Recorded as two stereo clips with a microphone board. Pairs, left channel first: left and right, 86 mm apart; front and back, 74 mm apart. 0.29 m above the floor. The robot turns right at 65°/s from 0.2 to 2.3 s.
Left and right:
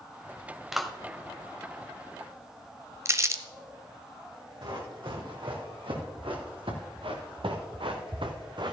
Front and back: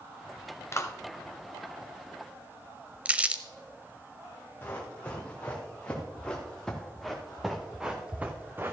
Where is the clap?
5° right, 0.9 m; by 0.9 s 5° left, 0.9 m.